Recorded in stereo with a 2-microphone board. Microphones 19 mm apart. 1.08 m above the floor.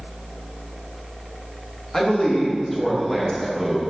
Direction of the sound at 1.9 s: 25° left (ahead or behind).